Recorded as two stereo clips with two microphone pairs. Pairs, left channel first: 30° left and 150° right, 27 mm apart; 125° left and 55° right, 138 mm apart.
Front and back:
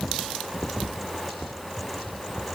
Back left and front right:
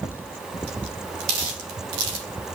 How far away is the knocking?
No knocking in this recording.